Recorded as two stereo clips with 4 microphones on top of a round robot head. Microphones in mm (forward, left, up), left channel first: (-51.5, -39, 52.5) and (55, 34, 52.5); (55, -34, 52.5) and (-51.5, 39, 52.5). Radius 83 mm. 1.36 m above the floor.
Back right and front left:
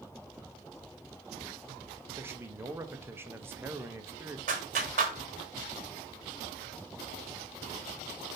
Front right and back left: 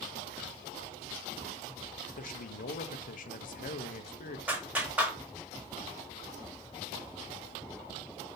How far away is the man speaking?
About 0.8 m.